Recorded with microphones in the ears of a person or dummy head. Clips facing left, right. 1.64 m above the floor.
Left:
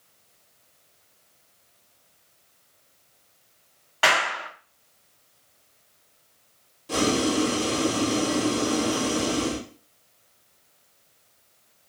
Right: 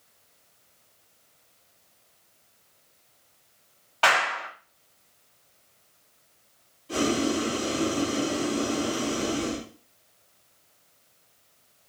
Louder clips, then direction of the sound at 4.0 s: Even; 25° left (ahead or behind).